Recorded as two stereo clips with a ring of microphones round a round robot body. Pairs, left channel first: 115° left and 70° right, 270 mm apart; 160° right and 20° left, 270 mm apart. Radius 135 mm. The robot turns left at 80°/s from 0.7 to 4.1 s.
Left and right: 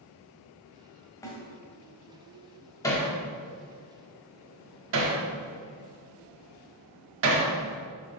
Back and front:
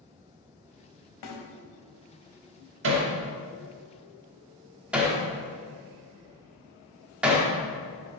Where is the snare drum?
170° right, 2.0 m; by 1.4 s 175° left, 2.0 m.